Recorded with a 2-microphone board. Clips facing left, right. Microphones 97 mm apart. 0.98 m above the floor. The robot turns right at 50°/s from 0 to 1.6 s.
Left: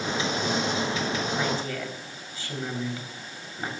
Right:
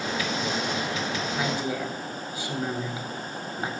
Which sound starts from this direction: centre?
A woman speaking, at 1.3 s.